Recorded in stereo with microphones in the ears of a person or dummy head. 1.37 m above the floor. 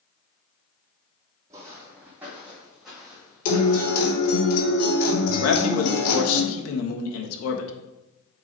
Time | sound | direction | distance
1.5 | footsteps | 20° right (ahead or behind) | 3 m
3.5 | a guitar | 50° left (ahead or behind) | 3.5 m
5.4 | a man speaking | 85° left | 1.4 m